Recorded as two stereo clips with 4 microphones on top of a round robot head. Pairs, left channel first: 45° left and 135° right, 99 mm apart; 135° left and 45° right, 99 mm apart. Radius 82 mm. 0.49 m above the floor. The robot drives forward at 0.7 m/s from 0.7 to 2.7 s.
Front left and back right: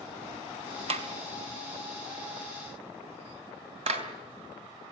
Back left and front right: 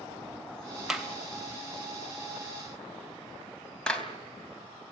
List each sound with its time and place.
0.9 s a clap: 130° right, 3 m; by 4.1 s 145° right, 4 m